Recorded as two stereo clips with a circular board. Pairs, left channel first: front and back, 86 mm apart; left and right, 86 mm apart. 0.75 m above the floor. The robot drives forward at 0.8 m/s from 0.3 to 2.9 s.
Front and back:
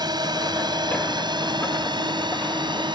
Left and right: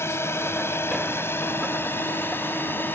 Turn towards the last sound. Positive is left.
turn(degrees=155)